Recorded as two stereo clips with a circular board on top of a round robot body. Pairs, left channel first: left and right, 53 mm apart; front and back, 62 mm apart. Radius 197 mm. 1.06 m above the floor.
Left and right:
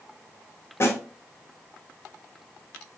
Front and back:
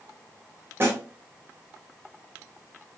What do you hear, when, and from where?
0.8 s a snare drum: 130° left, 1.2 m